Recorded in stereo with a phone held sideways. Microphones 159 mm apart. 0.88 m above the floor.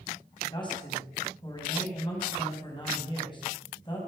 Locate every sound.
0.4 s a man speaking: 30° left (ahead or behind), 5.5 m